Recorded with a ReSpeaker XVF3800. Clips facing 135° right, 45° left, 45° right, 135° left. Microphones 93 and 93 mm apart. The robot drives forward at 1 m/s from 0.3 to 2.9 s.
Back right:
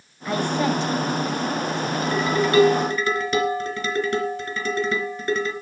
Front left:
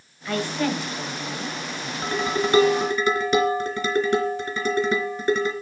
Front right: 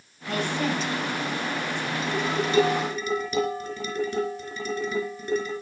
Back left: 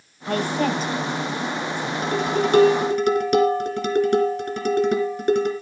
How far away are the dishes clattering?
About 3 m.